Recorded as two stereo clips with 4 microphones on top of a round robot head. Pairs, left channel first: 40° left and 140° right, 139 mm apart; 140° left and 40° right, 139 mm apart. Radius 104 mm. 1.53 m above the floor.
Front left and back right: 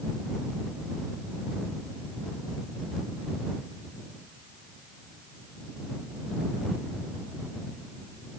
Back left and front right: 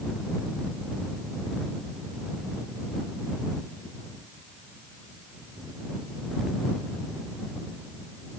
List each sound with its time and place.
Only background noise.